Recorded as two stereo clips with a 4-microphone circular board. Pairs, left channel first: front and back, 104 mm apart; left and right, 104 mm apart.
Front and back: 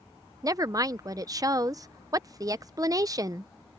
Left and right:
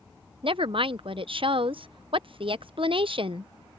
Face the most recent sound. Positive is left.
turn(degrees=-125)